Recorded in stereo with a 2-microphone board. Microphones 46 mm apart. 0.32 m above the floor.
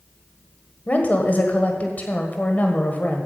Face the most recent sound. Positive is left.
turn(degrees=35)  # may be behind; listen again after turning